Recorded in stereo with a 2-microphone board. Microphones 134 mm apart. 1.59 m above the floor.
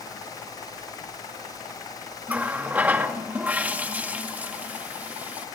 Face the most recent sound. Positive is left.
turn(degrees=-10)  # may be behind; listen again after turning